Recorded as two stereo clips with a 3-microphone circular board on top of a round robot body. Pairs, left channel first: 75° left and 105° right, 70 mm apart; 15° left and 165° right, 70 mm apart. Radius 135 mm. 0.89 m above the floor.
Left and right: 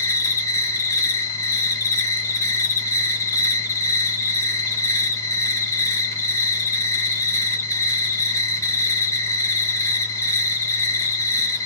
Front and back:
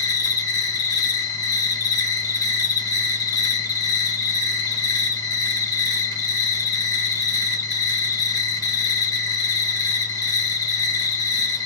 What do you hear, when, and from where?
0.0 s an insect: 30° left, 1.6 m